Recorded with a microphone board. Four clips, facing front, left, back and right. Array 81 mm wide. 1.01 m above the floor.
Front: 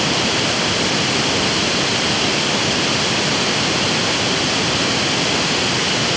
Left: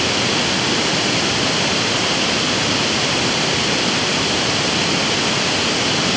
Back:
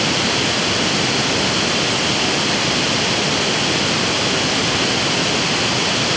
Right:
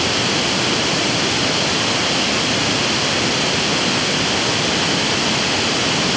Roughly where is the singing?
I don't hear singing.